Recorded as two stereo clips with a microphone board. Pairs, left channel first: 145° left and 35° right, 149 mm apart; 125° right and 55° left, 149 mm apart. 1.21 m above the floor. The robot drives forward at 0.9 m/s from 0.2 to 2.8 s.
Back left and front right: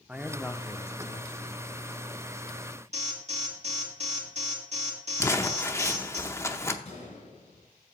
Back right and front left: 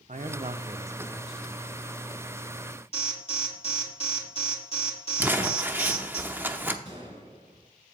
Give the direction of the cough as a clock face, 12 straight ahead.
No cough in this recording.